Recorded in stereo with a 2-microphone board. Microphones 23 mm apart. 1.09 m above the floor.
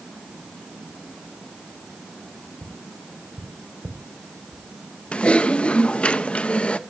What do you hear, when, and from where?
2.6 s tapping: 45° right (ahead or behind), 2.5 m
5.1 s typing on a keyboard: 60° left (ahead or behind), 0.9 m